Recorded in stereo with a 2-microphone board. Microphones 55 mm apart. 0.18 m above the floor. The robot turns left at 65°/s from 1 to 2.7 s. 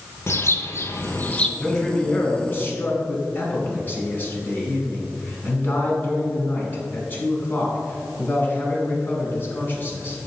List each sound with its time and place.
0.3 s a bird: 45° left, 0.7 m; by 1.5 s 15° left, 0.7 m
1.6 s a man speaking: straight behind, 1.6 m; by 10.2 s 110° left, 1.6 m